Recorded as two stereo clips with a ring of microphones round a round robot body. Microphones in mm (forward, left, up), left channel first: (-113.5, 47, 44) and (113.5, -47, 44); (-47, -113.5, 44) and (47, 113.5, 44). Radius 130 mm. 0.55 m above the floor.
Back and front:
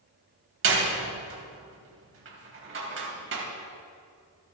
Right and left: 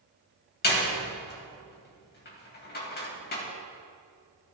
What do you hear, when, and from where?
0.6 s a door slam: 60° right, 2.5 m